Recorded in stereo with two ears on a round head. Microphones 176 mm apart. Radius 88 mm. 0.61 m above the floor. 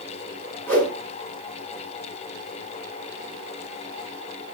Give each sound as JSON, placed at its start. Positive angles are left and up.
{"t": 0.7, "sound": "a whoosh", "side_deg": 10, "distance_m": 8.0}